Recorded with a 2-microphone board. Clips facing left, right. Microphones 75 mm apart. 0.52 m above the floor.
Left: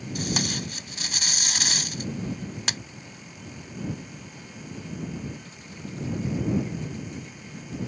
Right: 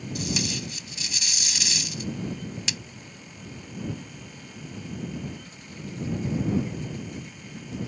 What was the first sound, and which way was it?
Tape being pulled, 55° left (ahead or behind).